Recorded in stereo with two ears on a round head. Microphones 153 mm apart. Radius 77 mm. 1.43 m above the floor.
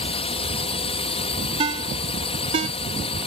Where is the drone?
35° left (ahead or behind).